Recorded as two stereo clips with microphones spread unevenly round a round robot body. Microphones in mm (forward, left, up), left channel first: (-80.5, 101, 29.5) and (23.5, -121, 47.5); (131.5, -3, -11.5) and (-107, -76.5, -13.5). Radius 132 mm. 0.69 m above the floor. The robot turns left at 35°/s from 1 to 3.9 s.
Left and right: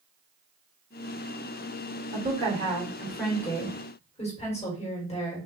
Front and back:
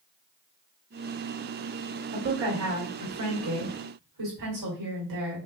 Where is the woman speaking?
120° right, 1.8 m; by 5.5 s straight behind, 1.8 m.